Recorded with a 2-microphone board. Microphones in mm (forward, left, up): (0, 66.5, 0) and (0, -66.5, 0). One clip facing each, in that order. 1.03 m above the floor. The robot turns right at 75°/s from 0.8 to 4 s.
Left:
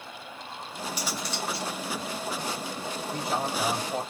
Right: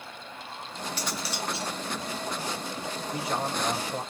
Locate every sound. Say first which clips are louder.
1.0 s cutlery clinking: even; 165° left, 0.7 m; by 1.7 s 140° right, 0.7 m
3.1 s a man speaking: left 1 dB; 15° left, 2.5 m; by 4.0 s 85° left, 2.5 m